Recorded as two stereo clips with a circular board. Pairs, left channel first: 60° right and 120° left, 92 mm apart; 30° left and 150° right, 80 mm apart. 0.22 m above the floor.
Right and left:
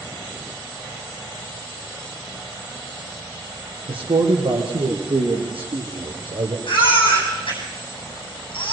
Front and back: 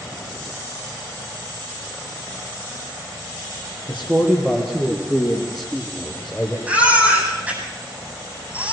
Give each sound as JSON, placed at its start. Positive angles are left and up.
{"t": 3.9, "sound": "a man speaking", "azimuth_deg": 140, "distance_m": 6.0}
{"t": 6.7, "sound": "a baby crying", "azimuth_deg": -80, "distance_m": 8.0}